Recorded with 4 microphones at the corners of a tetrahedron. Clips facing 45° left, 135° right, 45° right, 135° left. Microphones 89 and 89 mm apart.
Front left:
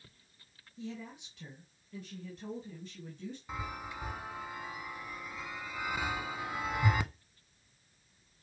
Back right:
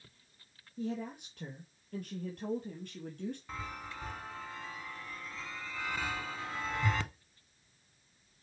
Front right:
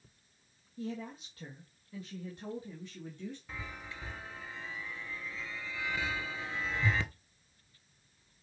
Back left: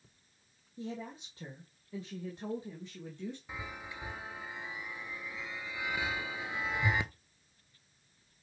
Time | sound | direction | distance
0.8 | a woman speaking | 165° right | 2 m
3.5 | a chime | 100° left | 0.8 m